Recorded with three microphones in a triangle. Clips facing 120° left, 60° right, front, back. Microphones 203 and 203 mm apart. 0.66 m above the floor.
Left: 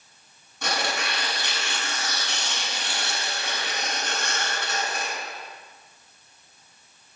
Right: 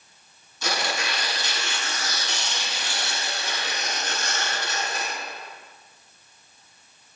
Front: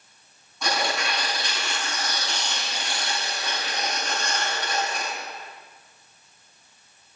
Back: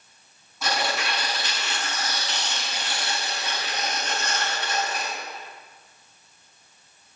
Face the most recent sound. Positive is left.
turn(degrees=90)